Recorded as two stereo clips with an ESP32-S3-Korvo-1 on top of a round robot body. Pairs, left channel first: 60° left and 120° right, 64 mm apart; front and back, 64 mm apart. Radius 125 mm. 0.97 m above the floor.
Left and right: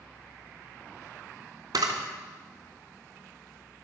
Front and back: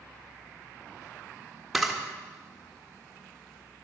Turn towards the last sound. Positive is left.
turn(degrees=-90)